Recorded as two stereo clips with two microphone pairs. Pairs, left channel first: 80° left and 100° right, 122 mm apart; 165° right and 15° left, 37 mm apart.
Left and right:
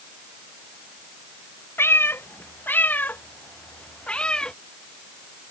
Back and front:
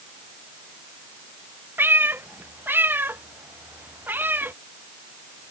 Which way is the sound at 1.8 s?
5° left.